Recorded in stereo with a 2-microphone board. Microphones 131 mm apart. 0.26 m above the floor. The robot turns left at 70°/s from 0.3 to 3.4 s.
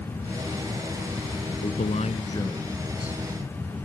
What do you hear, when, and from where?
1.6 s a man speaking: 90° left; by 3.2 s 20° right